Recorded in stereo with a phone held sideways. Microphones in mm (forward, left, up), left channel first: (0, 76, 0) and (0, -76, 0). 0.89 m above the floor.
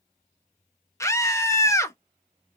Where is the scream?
20° left (ahead or behind), 0.8 m.